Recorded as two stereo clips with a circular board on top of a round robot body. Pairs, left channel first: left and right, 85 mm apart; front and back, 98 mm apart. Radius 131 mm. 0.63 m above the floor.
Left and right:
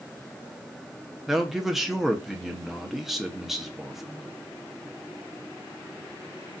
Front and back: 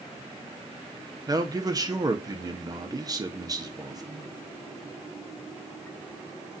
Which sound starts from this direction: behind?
A man speaking, at 1.3 s.